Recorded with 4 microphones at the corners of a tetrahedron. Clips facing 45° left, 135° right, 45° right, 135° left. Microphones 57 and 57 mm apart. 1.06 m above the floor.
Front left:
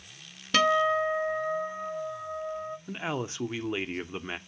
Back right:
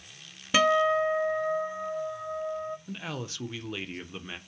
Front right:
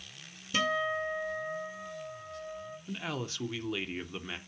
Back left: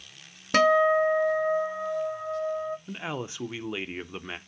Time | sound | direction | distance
0.5 | a guitar | 145° left | 0.7 m
2.9 | a man speaking | 85° left | 0.7 m